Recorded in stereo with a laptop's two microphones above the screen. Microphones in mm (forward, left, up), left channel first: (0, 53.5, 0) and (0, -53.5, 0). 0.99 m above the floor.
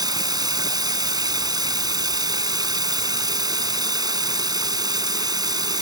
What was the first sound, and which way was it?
Running water, 40° right (ahead or behind).